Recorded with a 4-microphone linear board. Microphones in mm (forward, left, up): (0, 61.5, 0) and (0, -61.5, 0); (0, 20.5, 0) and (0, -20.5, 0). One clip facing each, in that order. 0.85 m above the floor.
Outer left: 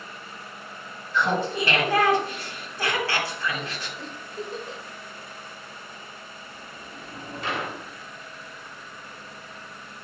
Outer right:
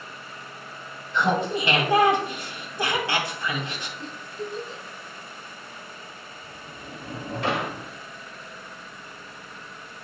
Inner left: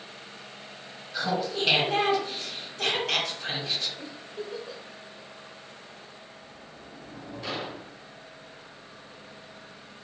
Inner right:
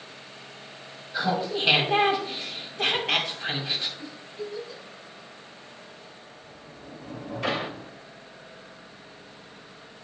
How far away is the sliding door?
About 1.1 m.